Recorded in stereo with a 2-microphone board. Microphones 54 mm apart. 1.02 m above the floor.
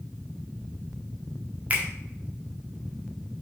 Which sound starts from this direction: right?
A finger snap, at 1.7 s.